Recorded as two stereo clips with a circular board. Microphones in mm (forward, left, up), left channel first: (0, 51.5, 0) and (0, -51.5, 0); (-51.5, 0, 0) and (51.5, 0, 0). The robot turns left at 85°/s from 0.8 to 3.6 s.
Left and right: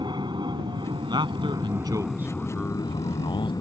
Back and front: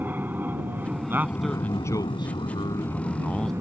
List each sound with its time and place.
0.0 s an aircraft: 65° right; by 3.6 s 55° left
1.1 s a man speaking: 60° right; by 3.5 s 95° left